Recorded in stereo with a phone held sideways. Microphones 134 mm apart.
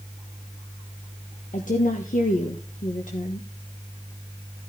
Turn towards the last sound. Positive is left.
turn(degrees=80)